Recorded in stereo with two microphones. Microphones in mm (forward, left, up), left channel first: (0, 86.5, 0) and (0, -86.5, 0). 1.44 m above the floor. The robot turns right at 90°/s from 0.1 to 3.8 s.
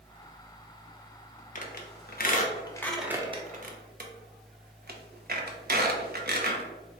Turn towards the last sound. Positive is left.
turn(degrees=-60)  # may be behind; listen again after turning